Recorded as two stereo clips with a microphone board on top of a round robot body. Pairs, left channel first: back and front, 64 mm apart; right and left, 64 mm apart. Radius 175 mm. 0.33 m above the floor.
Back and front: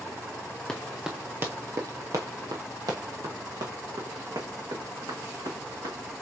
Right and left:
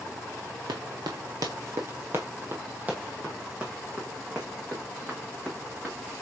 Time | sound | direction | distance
0.7 | running footsteps | 100° left | 0.6 m